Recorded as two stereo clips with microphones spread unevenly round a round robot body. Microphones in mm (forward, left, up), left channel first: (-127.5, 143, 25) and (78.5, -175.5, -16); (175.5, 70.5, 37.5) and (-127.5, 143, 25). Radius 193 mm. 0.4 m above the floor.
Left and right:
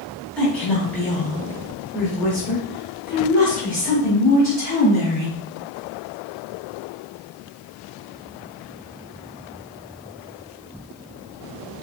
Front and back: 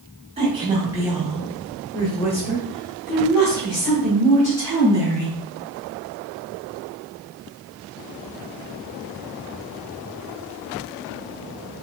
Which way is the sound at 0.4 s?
140° right.